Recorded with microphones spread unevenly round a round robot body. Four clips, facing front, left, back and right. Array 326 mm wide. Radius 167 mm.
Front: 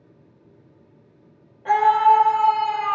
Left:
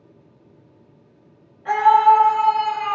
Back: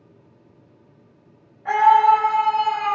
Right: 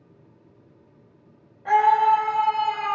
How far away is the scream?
About 3.5 m.